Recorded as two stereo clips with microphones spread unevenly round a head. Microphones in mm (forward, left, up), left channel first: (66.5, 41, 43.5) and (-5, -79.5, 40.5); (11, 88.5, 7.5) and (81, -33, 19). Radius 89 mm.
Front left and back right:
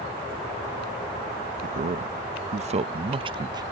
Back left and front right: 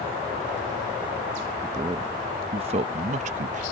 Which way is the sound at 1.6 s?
130° right.